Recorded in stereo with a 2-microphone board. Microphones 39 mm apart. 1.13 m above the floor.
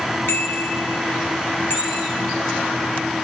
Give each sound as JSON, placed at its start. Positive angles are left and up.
{"t": 0.3, "sound": "a bicycle bell", "side_deg": 70, "distance_m": 8.5}